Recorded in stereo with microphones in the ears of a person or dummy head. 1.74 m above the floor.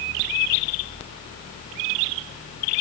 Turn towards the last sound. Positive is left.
No sound to turn to.